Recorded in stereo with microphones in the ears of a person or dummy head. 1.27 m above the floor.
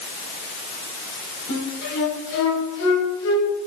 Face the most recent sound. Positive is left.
turn(degrees=65)  # may be behind; listen again after turning